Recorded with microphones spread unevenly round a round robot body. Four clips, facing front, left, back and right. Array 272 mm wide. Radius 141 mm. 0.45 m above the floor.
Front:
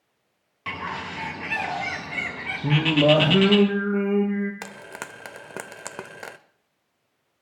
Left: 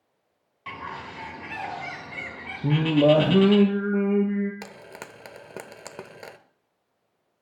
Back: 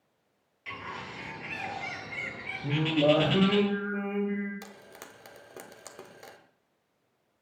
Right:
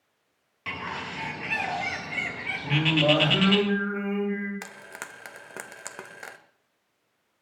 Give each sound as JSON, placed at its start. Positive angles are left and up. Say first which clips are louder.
{"t": 0.7, "sound": "a bird", "louder": "right 1 dB, front 8 dB", "azimuth_deg": -25, "distance_m": 4.0}
{"t": 2.6, "sound": "singing", "louder": "left 5 dB, front 5 dB", "azimuth_deg": 50, "distance_m": 5.0}
{"t": 4.6, "sound": "frying", "louder": "left 1 dB, front 10 dB", "azimuth_deg": 35, "distance_m": 1.0}